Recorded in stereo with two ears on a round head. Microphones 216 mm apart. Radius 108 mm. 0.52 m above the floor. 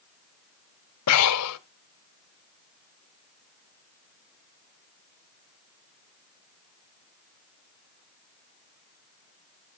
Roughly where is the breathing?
Left.